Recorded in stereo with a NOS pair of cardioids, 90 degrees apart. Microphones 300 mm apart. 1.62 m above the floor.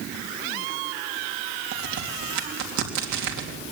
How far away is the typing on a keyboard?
I don't hear typing on a keyboard.